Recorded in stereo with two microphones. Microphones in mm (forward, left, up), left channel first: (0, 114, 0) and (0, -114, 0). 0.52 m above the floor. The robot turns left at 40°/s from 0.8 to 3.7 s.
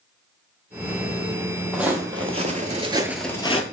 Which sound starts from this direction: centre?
Footsteps, at 1.7 s.